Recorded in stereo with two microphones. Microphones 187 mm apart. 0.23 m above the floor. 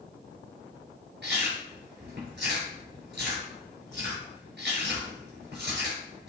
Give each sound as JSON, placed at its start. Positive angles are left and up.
{"t": 1.2, "sound": "chewing", "side_deg": -70, "distance_m": 4.5}